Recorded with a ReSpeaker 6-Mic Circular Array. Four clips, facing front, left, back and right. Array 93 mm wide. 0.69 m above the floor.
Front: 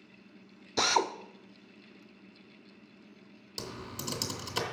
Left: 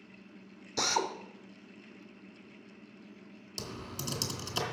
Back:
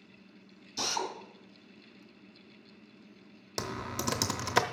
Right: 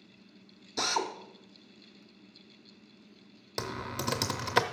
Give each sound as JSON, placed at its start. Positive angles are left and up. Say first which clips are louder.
{"t": 0.8, "sound": "a drill", "louder": "even, front 7 dB", "azimuth_deg": 5, "distance_m": 0.5}
{"t": 3.6, "sound": "typing on a keyboard", "louder": "right 6 dB, back 5 dB", "azimuth_deg": -130, "distance_m": 0.5}